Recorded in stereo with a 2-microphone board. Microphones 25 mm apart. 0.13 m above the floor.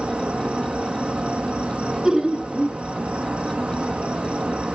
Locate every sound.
0.0 s an insect: 60° right (ahead or behind), 1.9 m
2.0 s laughter: 20° right (ahead or behind), 1.7 m